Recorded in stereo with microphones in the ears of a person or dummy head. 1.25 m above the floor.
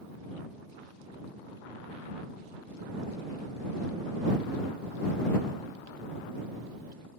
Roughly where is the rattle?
I don't hear a rattle.